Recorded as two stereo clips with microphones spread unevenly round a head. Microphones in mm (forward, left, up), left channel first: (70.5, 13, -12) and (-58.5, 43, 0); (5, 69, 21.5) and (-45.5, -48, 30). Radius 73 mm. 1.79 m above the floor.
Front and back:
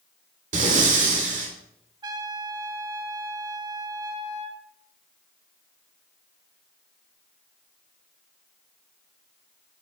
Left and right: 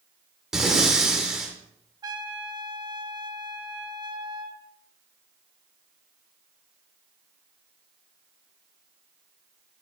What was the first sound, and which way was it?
Breathing, 165° left.